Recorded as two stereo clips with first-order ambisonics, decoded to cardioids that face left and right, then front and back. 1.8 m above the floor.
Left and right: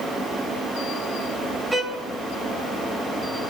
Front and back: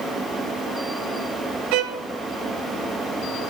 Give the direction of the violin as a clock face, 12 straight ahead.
6 o'clock.